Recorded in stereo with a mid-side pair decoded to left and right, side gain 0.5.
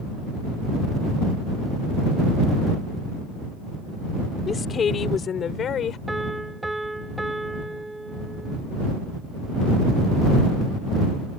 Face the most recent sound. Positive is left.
turn(degrees=-10)